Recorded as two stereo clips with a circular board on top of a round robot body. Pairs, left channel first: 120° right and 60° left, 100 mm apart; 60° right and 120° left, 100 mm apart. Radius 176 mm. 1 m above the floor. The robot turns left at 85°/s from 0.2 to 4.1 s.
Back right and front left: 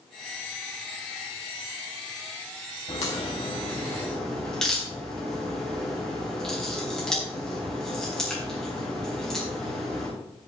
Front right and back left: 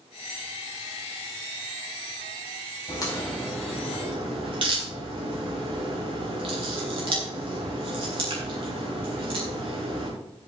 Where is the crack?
100° right, 4.5 m; by 10.1 s 155° left, 4.5 m.